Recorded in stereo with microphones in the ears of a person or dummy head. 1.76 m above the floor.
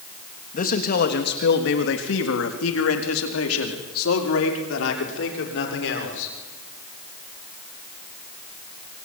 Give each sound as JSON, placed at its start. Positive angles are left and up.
{"t": 0.5, "sound": "a man speaking", "side_deg": 40, "distance_m": 3.0}